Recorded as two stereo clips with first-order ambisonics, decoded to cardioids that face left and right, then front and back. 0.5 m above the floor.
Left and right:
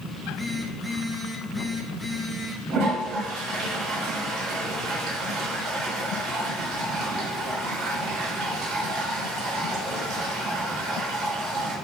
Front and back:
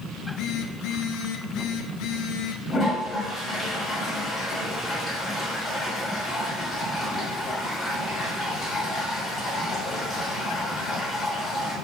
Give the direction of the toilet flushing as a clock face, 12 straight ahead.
3 o'clock.